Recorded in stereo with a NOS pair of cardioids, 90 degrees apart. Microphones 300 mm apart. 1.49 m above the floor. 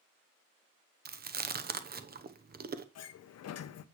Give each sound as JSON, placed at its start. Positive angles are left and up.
{"t": 1.1, "sound": "chewing", "azimuth_deg": -30, "distance_m": 1.0}
{"t": 3.0, "sound": "a sliding door", "azimuth_deg": 55, "distance_m": 0.8}